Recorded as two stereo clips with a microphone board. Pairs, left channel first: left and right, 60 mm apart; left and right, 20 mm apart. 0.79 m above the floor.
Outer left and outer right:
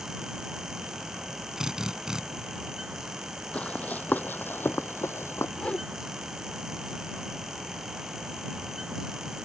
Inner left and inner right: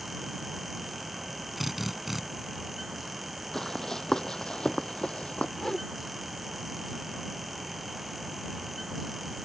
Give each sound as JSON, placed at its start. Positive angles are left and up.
{"t": 1.6, "sound": "a drill", "side_deg": -10}
{"t": 3.5, "sound": "running footsteps", "side_deg": 20}
{"t": 5.6, "sound": "a whoosh", "side_deg": 20}